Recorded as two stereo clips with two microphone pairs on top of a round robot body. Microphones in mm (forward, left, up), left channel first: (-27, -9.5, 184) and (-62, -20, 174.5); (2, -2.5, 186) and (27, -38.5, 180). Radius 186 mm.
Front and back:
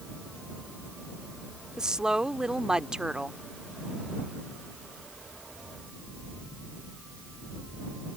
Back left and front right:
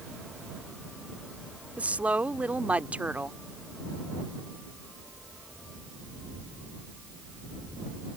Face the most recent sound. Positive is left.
turn(degrees=-105)